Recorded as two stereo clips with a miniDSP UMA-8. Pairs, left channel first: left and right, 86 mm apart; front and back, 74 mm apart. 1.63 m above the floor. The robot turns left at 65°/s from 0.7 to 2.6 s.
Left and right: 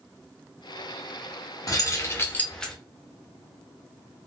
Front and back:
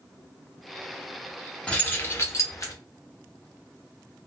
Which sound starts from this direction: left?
Keys jangling, at 1.7 s.